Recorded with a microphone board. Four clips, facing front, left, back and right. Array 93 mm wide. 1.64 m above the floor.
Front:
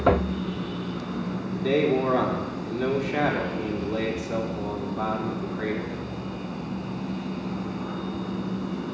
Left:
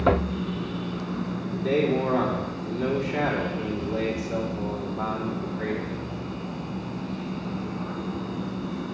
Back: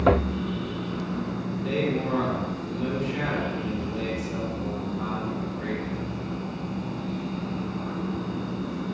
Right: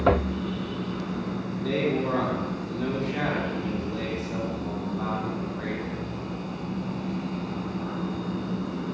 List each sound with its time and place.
1.5 s a man speaking: 10° left, 4 m